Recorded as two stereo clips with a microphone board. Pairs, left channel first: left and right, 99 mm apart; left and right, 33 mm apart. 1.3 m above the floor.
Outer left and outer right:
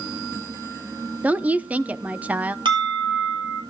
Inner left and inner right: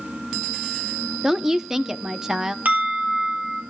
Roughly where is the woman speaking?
Centre.